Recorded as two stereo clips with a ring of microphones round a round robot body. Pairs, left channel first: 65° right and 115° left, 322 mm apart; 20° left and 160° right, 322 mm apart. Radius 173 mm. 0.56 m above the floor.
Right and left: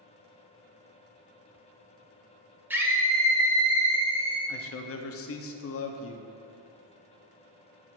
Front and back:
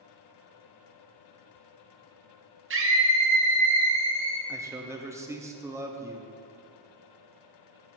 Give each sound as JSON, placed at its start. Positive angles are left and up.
{"t": 2.7, "sound": "a scream", "azimuth_deg": -165, "distance_m": 1.2}
{"t": 4.5, "sound": "a man speaking", "azimuth_deg": -80, "distance_m": 0.7}